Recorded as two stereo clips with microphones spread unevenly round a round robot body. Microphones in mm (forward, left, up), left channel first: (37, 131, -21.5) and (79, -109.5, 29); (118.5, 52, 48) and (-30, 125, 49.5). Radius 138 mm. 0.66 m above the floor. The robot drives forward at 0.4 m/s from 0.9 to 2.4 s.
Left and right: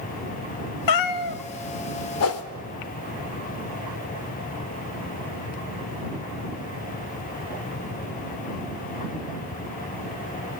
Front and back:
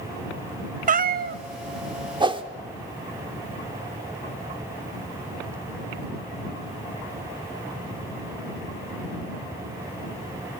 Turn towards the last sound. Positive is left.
turn(degrees=95)